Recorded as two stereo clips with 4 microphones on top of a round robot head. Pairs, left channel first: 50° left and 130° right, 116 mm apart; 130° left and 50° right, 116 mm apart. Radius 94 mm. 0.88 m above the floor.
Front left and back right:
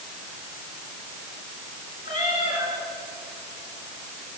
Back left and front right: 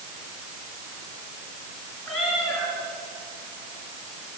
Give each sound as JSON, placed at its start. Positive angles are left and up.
{"t": 2.0, "sound": "a cat meowing", "azimuth_deg": 45, "distance_m": 9.0}